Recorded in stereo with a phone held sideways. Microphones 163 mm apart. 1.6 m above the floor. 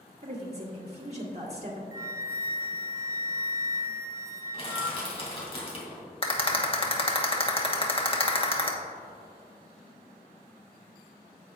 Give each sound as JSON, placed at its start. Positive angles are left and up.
{"t": 0.2, "sound": "a woman speaking", "side_deg": -40, "distance_m": 1.4}
{"t": 1.9, "sound": "a flute", "side_deg": -20, "distance_m": 0.5}
{"t": 4.5, "sound": "crushing", "side_deg": 35, "distance_m": 2.5}
{"t": 6.2, "sound": "a rattle", "side_deg": 35, "distance_m": 1.1}